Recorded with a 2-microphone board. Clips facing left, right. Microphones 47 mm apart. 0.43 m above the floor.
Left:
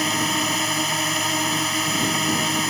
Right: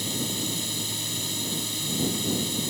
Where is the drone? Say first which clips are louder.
Left 9 dB; 60° left (ahead or behind).